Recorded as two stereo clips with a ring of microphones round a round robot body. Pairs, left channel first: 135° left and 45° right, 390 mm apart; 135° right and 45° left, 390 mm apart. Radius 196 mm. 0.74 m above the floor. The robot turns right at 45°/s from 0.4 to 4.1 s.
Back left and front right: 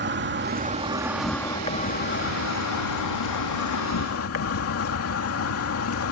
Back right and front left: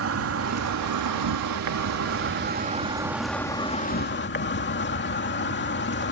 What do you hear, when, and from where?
0.0 s an insect: 5° left; by 6.1 s 175° left